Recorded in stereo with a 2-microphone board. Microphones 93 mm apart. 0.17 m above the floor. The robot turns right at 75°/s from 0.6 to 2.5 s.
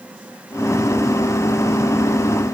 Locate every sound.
Only background noise.